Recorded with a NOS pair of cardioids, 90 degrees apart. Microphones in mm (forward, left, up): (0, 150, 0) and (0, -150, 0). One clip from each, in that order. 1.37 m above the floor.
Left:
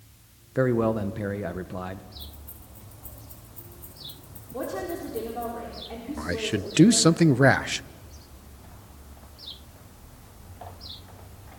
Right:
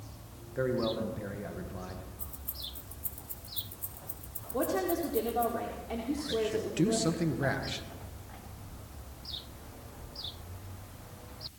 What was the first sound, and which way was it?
A man speaking, 60° left.